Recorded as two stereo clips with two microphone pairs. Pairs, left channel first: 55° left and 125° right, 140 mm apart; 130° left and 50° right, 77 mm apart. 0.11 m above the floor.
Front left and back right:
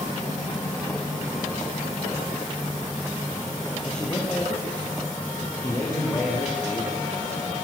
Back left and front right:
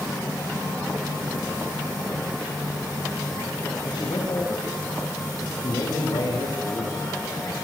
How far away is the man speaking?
About 6.5 m.